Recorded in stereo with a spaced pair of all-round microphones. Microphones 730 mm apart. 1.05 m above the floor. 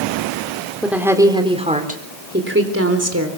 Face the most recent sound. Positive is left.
turn(degrees=-20)  # may be behind; listen again after turning